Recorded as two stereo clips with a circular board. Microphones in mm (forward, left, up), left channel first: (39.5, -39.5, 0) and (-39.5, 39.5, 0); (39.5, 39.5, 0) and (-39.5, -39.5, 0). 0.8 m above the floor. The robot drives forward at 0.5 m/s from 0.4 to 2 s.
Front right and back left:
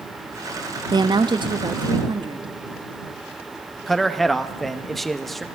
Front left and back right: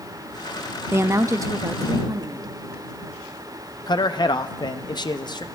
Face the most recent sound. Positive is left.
turn(degrees=45)